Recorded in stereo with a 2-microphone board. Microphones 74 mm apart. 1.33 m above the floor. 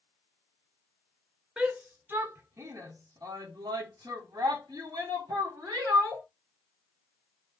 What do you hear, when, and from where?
1.6 s a shout: 15° right (ahead or behind), 1.2 m; by 6.2 s 55° right (ahead or behind), 2 m